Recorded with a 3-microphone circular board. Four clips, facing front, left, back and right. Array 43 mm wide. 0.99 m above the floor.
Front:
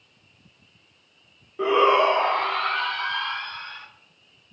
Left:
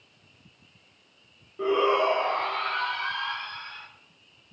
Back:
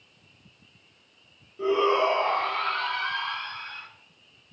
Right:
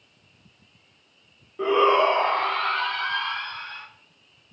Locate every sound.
1.6 s a shout: 20° right, 0.9 m; by 3.9 s 40° right, 4 m